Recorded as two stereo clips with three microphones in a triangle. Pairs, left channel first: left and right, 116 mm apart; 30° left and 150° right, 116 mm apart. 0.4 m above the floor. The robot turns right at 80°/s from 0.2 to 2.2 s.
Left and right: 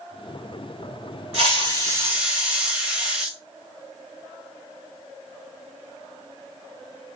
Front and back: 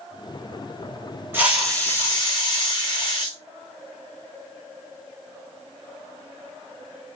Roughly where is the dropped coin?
I don't hear a dropped coin.